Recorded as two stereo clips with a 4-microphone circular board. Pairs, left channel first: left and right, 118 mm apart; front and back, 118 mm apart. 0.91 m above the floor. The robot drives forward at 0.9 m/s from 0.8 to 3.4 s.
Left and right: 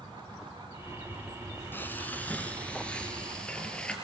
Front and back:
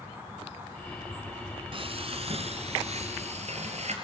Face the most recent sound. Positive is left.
turn(degrees=170)